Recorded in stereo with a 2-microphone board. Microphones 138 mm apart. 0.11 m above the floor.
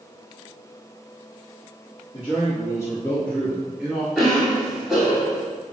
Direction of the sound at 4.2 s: 5° right (ahead or behind).